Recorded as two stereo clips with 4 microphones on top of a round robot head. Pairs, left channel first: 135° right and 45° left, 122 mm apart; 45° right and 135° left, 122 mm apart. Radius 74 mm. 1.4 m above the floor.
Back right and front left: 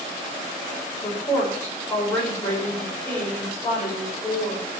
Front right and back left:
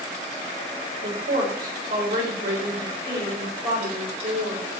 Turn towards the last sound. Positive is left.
turn(degrees=150)